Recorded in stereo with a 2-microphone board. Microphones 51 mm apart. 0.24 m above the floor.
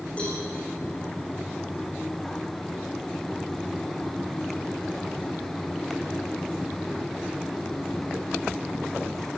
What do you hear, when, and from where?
0.2 s a cowbell: 20° left (ahead or behind), 9.5 m